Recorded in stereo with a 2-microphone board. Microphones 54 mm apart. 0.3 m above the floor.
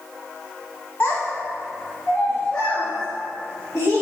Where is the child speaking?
45° left (ahead or behind), 1.2 m; by 4.0 s 40° left (ahead or behind), 4.5 m.